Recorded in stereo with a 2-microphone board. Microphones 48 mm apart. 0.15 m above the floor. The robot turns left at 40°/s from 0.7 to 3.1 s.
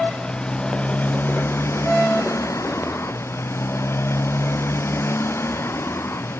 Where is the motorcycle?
160° left; by 6.4 s 65° left.